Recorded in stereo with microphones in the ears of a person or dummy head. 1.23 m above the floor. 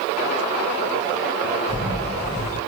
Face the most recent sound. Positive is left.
turn(degrees=-20)  # may be behind; listen again after turning